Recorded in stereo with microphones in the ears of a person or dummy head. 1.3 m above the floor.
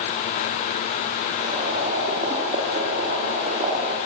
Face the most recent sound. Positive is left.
turn(degrees=-40)  # may be behind; listen again after turning